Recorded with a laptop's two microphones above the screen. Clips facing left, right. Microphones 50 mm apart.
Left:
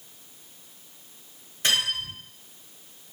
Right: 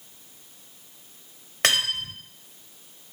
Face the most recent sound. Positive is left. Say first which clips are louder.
# right 2 dB
turn(degrees=-80)